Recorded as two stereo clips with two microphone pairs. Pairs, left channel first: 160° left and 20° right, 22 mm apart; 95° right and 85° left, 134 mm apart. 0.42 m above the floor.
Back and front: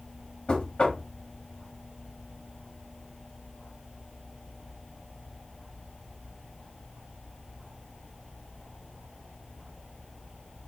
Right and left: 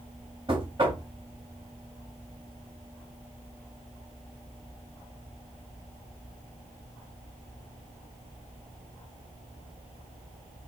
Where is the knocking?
130° left, 1.5 m.